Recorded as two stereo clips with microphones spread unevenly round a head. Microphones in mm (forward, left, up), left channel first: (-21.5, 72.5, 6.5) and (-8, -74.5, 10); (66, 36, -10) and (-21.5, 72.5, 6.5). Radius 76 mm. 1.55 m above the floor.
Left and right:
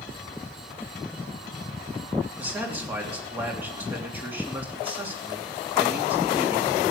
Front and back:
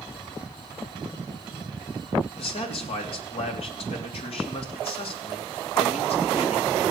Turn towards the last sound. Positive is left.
turn(degrees=-5)